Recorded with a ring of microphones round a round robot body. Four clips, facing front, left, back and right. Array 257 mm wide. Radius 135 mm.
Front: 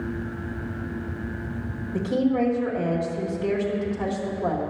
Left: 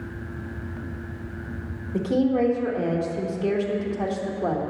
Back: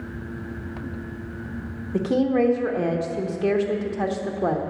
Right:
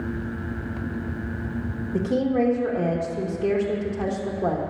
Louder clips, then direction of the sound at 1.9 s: Left 1 dB, back 2 dB; 170° right.